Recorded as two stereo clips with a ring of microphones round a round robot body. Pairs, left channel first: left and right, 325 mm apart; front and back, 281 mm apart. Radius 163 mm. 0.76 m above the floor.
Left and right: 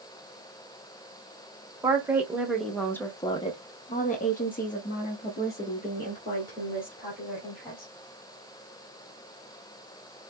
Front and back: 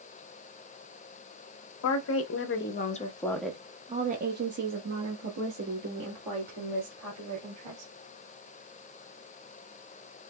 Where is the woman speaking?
10° right, 1.0 m; by 7.9 s 155° left, 2.5 m.